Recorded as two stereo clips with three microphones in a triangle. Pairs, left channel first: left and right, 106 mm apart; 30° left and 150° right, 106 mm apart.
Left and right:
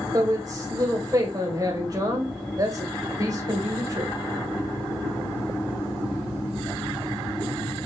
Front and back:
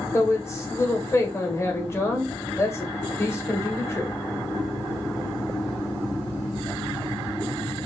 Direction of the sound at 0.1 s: 35° right.